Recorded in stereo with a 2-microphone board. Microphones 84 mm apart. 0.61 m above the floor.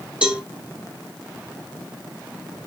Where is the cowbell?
15° right (ahead or behind), 1.2 m.